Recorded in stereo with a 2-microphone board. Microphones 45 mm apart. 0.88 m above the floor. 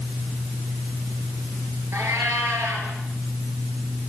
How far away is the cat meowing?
About 8.5 m.